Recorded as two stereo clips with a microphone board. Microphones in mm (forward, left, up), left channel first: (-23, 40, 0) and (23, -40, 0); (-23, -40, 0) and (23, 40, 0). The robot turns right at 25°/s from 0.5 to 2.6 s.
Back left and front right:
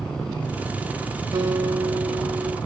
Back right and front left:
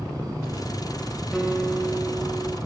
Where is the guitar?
25° right, 1.1 m; by 2.6 s 5° left, 1.1 m.